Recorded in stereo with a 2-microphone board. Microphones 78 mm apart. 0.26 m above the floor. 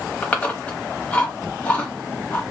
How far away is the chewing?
About 1.0 m.